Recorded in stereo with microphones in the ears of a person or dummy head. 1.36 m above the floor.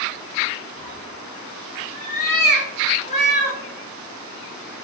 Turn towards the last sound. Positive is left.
turn(degrees=25)  # may be behind; listen again after turning